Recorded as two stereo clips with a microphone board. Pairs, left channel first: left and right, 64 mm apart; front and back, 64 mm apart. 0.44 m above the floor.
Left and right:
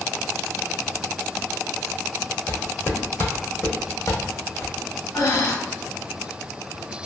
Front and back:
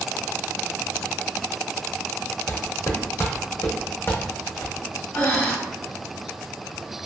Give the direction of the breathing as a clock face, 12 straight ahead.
10 o'clock.